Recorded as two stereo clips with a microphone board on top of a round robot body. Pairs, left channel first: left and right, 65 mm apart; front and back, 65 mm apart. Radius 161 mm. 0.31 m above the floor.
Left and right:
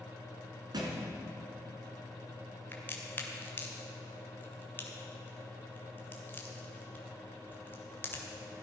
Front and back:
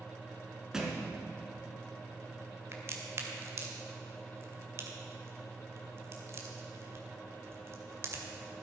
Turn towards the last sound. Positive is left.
turn(degrees=140)